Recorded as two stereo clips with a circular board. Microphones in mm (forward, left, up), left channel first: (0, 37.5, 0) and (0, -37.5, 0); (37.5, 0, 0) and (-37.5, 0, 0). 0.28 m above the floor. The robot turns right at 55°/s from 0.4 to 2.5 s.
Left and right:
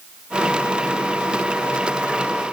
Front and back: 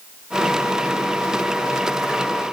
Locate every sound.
Only background noise.